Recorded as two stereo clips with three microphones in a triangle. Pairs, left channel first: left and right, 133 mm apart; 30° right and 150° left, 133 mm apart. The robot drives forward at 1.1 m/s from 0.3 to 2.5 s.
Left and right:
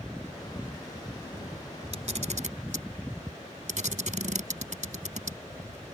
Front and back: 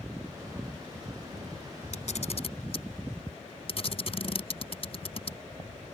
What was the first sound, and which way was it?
A camera shutter, 55° right.